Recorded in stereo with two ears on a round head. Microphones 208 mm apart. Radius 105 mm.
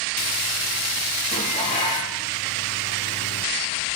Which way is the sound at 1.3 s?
30° left (ahead or behind).